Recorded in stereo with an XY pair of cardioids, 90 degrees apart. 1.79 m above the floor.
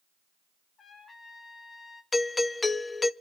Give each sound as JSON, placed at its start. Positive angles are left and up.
{"t": 0.8, "sound": "a trumpet", "azimuth_deg": 50, "distance_m": 2.0}
{"t": 2.1, "sound": "a doorbell", "azimuth_deg": 25, "distance_m": 0.7}